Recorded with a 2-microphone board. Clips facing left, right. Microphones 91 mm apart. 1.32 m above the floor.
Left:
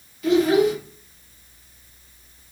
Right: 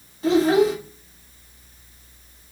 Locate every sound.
0.2 s a child speaking: 30° right (ahead or behind), 0.9 m